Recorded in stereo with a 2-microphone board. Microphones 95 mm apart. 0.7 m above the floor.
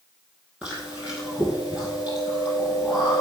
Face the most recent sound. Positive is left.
turn(degrees=-10)  # may be behind; listen again after turning